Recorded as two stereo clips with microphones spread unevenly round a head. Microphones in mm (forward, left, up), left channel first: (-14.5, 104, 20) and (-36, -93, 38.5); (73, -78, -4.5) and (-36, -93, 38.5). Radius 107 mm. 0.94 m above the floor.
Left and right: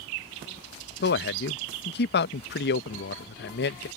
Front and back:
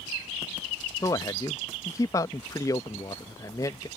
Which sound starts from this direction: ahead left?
A man speaking, at 1.0 s.